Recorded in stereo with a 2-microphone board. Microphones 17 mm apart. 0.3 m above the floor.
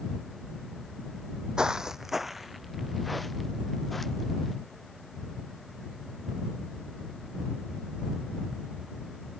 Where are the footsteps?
55° right (ahead or behind); by 4.5 s 10° left (ahead or behind).